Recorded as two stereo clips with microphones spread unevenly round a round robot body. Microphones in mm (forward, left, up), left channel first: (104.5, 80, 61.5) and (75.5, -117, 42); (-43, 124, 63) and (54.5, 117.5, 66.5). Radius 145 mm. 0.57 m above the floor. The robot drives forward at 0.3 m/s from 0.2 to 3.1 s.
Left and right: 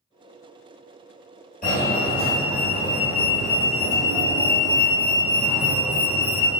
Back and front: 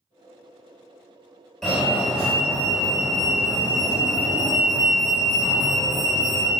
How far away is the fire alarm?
About 1.9 m.